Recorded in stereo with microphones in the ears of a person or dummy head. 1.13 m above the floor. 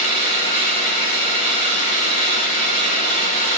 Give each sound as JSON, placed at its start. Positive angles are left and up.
{"t": 0.0, "sound": "an engine running", "side_deg": 45, "distance_m": 3.5}